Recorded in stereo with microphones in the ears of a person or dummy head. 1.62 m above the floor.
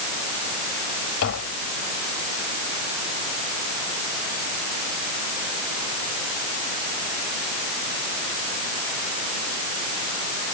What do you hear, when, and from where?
1.2 s tapping: 75° left (ahead or behind)